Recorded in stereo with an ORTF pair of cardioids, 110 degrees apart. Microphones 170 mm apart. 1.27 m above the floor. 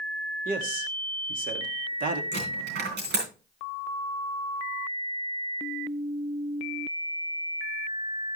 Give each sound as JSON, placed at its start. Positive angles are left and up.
{"t": 0.5, "sound": "a man speaking", "azimuth_deg": -50, "distance_m": 2.0}
{"t": 2.3, "sound": "a dropped coin", "azimuth_deg": -70, "distance_m": 6.0}